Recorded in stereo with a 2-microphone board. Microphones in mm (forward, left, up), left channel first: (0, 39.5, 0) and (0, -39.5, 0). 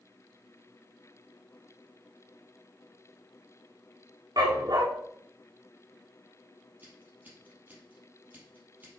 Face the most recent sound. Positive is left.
turn(degrees=-20)  # may be behind; listen again after turning